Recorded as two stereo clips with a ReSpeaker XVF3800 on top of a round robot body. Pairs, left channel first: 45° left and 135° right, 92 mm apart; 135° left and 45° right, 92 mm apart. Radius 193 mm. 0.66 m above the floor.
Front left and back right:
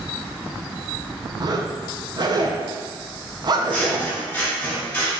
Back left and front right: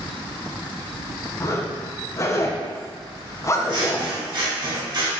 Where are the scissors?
25° right, 1.5 m.